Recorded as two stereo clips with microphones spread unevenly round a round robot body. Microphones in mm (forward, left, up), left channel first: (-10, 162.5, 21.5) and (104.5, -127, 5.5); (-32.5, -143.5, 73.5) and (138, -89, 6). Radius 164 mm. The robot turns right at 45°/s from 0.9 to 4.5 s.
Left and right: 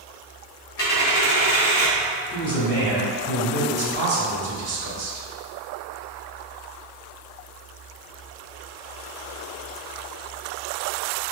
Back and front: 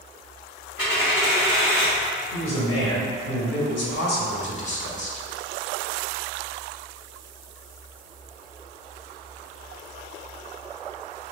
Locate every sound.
0.8 s a dropped coin: 125° left, 1.7 m; by 2.0 s 170° left, 1.7 m
2.3 s a man speaking: 160° left, 1.4 m; by 5.3 s 105° right, 1.4 m